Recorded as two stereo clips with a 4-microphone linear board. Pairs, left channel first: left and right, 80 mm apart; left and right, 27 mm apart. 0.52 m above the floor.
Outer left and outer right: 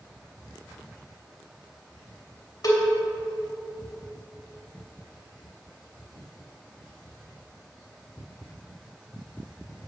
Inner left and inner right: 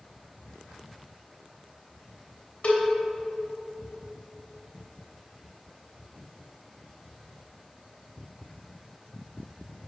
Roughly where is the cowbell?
Left.